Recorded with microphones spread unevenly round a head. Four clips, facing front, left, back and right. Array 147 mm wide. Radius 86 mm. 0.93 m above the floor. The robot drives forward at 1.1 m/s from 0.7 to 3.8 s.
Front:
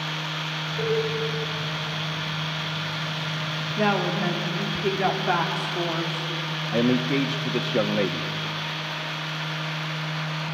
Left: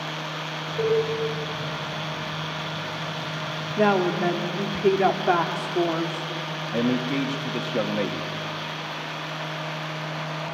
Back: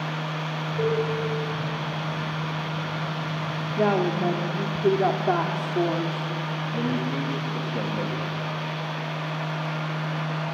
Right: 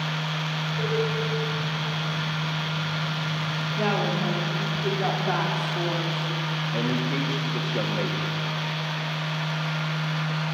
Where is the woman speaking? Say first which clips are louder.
Left 6 dB, back 1 dB; 125° left, 2 m.